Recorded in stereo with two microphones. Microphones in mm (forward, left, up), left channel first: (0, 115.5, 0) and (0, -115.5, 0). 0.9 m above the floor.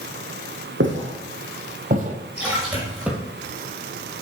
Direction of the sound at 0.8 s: 60° right (ahead or behind).